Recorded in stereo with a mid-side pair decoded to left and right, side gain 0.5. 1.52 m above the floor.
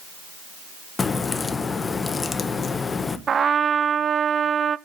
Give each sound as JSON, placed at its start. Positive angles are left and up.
{"t": 1.0, "sound": "a crack", "azimuth_deg": 30, "distance_m": 1.1}
{"t": 3.3, "sound": "a trumpet", "azimuth_deg": -40, "distance_m": 0.5}